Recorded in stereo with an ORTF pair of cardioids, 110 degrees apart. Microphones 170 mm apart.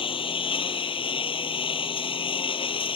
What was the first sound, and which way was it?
A lawn mower, 35° left.